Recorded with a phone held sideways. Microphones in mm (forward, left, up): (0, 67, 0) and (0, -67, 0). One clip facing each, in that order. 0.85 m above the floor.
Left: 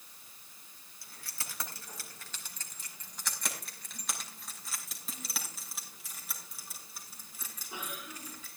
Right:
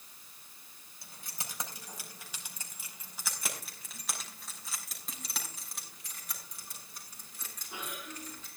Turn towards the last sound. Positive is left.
turn(degrees=10)  # may be behind; listen again after turning